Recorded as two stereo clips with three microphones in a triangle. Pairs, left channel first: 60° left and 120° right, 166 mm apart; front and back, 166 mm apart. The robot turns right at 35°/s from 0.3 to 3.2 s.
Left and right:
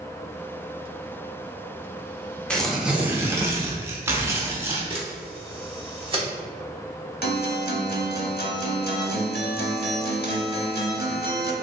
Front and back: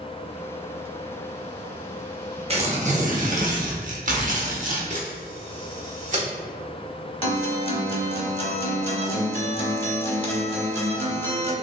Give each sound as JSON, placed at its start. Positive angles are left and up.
{"t": 2.5, "sound": "tearing paper", "azimuth_deg": 145, "distance_m": 0.6}
{"t": 4.9, "sound": "a camera shutter", "azimuth_deg": -165, "distance_m": 0.9}
{"t": 7.2, "sound": "a guitar", "azimuth_deg": 55, "distance_m": 0.6}